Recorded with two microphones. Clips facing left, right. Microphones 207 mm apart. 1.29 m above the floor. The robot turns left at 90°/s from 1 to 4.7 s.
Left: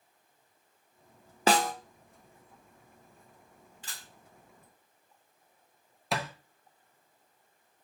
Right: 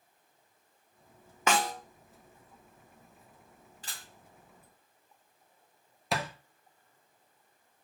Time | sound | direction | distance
1.5 | a snare drum | 35° left (ahead or behind) | 0.5 m
3.8 | a camera shutter | 40° right (ahead or behind) | 2 m
6.1 | a thud | centre (ahead or behind) | 0.6 m